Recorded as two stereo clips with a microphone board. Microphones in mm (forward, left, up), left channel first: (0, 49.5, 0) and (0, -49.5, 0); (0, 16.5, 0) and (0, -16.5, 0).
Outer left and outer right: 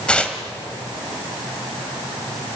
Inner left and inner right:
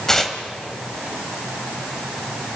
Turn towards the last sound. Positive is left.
turn(degrees=10)  # may be behind; listen again after turning